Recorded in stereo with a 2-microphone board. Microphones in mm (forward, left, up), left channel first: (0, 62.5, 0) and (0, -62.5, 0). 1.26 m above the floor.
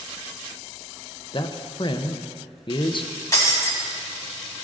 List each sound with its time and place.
1.3 s a man speaking: 40° left (ahead or behind), 0.6 m
3.3 s breaking glass: 25° left (ahead or behind), 1.8 m